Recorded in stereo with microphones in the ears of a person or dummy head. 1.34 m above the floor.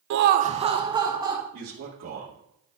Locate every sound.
0.1 s laughter: 75° right (ahead or behind), 0.5 m; by 1.4 s 10° right (ahead or behind), 2 m
1.5 s a man speaking: 75° right (ahead or behind), 3 m